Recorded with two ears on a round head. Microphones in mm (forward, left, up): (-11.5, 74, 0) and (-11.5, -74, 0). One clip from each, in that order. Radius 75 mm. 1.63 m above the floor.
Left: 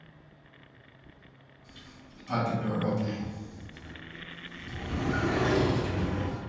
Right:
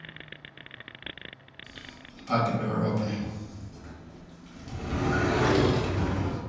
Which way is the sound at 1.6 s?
55° right (ahead or behind).